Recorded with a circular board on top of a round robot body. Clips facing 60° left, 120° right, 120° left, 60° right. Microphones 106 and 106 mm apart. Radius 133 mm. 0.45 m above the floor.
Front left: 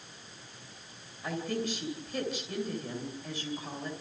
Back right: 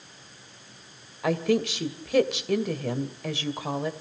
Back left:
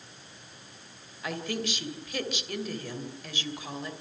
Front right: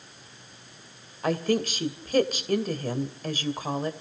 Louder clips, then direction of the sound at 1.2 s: Back right 9 dB, front right 8 dB; 110° right.